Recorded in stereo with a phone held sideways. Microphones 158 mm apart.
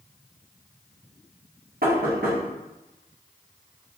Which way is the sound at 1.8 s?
70° right (ahead or behind).